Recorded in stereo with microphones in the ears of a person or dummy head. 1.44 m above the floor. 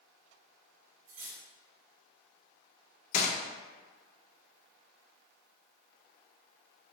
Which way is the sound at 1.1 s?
50° right (ahead or behind).